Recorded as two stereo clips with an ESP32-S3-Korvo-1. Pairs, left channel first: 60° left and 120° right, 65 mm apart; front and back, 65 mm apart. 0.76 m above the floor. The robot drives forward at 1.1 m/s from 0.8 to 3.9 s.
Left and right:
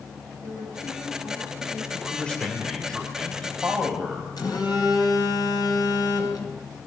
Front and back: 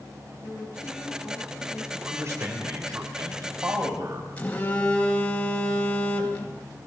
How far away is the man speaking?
About 3 m.